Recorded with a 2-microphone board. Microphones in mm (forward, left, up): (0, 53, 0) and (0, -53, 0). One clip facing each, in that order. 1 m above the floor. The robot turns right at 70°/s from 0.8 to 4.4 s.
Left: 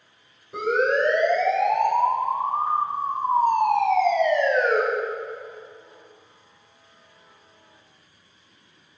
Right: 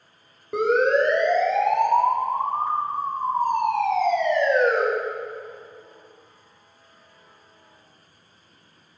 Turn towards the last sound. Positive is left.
turn(degrees=65)  # may be behind; listen again after turning